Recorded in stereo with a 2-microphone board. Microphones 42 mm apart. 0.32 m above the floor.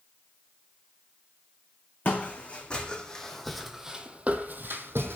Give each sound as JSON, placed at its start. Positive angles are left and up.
{"t": 2.0, "sound": "footsteps", "side_deg": 30, "distance_m": 1.3}